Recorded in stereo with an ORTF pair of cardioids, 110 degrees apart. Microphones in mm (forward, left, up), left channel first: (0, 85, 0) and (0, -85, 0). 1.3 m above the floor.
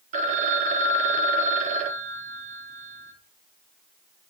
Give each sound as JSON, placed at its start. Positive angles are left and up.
{"t": 0.1, "sound": "a phone ringing", "azimuth_deg": -45, "distance_m": 0.6}